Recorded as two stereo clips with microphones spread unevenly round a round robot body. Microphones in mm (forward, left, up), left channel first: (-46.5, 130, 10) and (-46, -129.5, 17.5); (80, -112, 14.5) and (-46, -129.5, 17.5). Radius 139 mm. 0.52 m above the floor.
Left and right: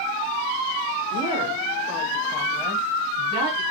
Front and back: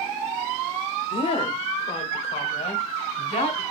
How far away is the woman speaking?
About 1.1 m.